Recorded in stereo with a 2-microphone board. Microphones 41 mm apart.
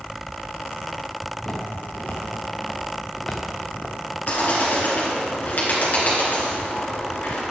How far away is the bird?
About 3.5 m.